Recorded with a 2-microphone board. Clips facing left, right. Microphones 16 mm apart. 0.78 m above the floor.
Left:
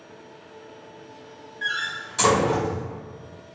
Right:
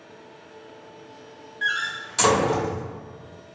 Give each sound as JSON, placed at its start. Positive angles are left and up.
{"t": 1.6, "sound": "a door slam", "side_deg": -15, "distance_m": 1.2}